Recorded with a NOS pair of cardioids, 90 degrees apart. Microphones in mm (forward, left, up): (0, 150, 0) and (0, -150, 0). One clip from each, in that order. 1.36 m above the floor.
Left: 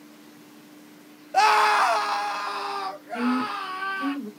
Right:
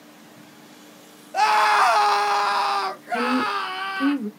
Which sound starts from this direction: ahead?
A scream, at 1.3 s.